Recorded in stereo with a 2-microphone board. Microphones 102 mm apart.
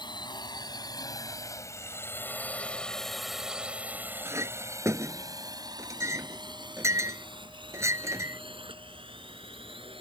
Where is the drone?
55° left (ahead or behind); by 10.0 s 70° right (ahead or behind).